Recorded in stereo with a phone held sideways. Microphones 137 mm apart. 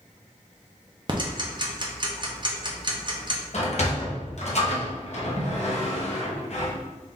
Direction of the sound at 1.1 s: 35° right (ahead or behind).